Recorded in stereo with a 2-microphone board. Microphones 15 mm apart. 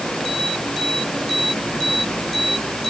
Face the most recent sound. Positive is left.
No sound to turn to.